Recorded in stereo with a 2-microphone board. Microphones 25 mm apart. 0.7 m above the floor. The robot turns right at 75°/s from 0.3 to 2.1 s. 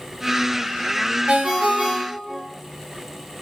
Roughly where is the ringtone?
Behind right.